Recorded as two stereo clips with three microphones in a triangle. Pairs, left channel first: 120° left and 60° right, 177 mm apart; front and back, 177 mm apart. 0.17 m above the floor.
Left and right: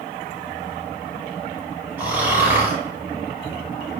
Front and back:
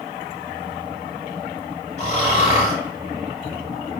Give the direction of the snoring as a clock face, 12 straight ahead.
12 o'clock.